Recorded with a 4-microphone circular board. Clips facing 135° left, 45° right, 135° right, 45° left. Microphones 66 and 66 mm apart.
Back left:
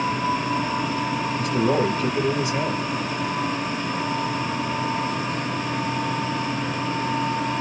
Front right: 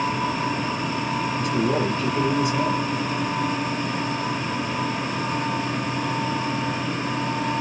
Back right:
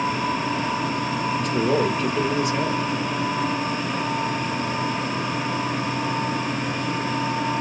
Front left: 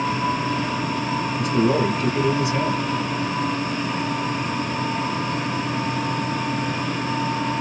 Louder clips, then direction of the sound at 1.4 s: Back left 3 dB, front left 2 dB; 95° left.